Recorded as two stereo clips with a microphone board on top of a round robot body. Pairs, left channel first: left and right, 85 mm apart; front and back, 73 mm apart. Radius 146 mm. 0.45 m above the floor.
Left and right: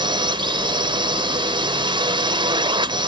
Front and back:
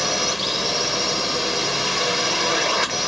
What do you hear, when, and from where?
0.0 s a drone: 90° right